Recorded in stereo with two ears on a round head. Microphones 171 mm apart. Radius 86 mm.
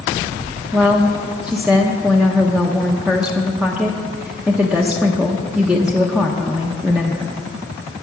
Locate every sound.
0.7 s a woman speaking: 5° right (ahead or behind), 0.8 m